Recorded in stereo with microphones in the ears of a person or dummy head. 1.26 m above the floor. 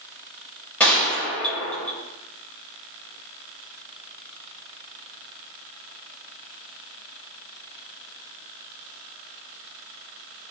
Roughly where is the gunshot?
Centre.